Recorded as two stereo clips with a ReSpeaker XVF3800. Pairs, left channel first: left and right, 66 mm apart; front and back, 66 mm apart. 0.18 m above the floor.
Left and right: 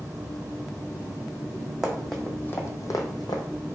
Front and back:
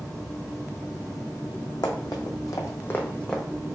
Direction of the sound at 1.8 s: 5° right.